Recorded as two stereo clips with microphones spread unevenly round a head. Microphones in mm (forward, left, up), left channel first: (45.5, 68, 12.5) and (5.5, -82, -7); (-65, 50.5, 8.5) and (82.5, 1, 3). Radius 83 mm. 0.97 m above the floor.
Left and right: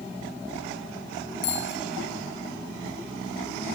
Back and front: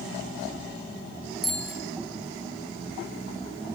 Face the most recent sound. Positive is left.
turn(degrees=75)